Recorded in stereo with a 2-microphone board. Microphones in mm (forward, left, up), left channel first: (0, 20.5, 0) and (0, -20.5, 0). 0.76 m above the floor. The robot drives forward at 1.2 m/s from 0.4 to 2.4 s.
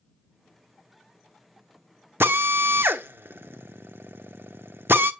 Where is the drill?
85° right, 0.9 m; by 5.1 s 75° right (ahead or behind), 0.9 m.